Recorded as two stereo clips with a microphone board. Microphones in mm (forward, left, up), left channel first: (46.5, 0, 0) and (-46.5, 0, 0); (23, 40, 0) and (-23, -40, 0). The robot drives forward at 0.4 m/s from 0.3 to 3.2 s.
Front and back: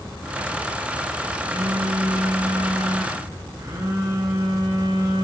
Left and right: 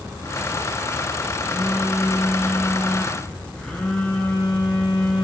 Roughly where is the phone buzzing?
Behind left.